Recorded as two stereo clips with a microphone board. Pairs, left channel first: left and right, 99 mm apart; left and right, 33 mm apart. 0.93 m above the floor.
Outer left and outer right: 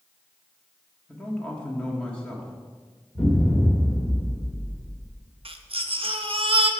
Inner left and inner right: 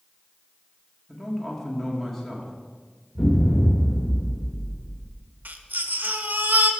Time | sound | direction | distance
1.1 | a man speaking | 10° left (ahead or behind) | 1.5 m
3.1 | an explosion | 15° left (ahead or behind) | 2 m
5.5 | a baby crying | 70° right (ahead or behind) | 0.6 m